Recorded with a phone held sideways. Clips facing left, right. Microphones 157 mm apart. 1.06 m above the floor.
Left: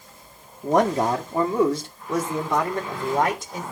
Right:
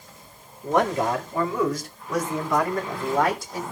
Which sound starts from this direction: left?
A man speaking, at 0.6 s.